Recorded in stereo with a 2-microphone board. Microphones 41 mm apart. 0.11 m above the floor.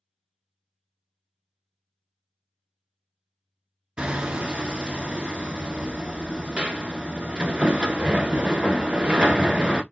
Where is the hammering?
25° right (ahead or behind), 0.7 m.